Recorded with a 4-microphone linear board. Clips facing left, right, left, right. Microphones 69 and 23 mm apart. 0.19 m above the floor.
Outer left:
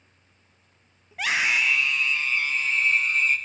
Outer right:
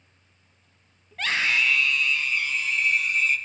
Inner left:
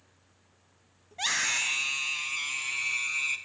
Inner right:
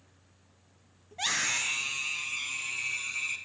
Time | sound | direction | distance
1.1 | a scream | 10° left (ahead or behind) | 1.1 m